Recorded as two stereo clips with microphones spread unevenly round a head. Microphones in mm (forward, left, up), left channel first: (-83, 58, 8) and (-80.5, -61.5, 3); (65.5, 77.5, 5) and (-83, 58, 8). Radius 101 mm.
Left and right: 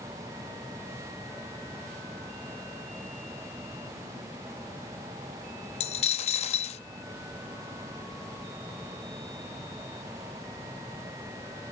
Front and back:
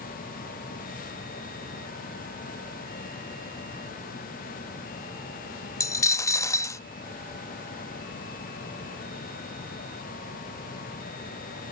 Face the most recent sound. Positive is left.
turn(degrees=75)